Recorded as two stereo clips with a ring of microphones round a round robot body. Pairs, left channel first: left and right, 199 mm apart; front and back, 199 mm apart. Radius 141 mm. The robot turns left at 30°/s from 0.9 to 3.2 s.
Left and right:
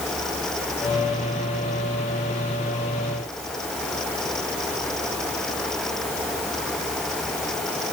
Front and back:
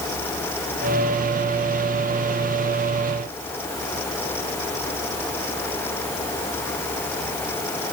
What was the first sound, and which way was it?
Only background noise.